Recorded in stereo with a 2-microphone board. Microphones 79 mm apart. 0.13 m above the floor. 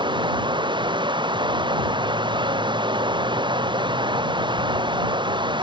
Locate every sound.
0.0 s running water: 85° right